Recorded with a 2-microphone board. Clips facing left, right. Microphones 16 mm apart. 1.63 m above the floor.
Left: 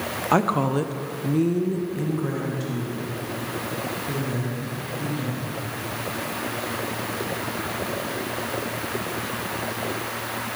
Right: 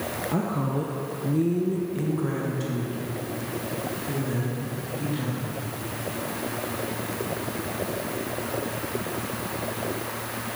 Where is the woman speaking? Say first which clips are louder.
Left 8 dB; 65° left (ahead or behind), 0.9 m; by 5.6 s 20° right (ahead or behind), 4.5 m.